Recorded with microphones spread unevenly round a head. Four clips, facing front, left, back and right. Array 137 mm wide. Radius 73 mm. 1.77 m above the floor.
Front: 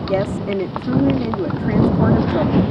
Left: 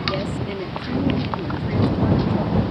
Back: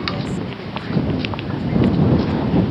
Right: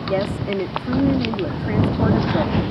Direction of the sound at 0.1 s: 25° right.